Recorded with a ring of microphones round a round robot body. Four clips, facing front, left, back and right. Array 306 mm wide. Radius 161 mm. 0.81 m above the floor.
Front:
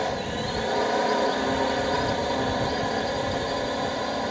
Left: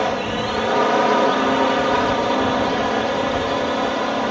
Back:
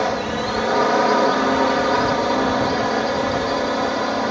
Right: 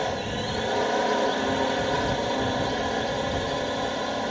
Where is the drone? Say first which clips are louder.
Left 7 dB, back 6 dB; 135° left.